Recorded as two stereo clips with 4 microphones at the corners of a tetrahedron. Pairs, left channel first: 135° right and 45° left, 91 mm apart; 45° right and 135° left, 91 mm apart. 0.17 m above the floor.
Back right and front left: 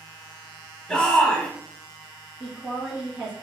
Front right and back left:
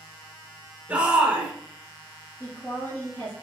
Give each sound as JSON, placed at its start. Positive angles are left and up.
{"t": 0.9, "sound": "a shout", "azimuth_deg": 170, "distance_m": 1.1}
{"t": 2.4, "sound": "a woman speaking", "azimuth_deg": -15, "distance_m": 1.7}